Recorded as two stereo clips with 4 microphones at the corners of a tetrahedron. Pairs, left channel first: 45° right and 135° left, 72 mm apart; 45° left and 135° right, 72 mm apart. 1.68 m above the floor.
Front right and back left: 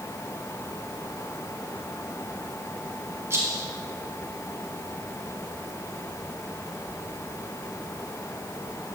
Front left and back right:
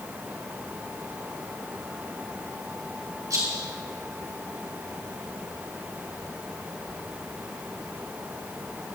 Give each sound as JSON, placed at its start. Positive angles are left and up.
{"t": 3.3, "sound": "a rattle", "azimuth_deg": -170, "distance_m": 4.5}